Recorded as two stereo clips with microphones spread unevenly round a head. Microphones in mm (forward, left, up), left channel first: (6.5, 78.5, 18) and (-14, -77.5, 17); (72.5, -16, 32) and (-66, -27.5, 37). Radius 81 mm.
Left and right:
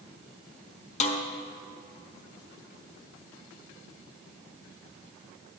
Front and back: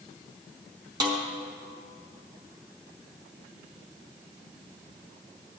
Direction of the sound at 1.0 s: 125° left.